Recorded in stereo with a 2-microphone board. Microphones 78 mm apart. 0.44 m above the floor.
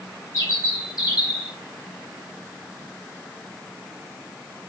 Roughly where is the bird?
Left.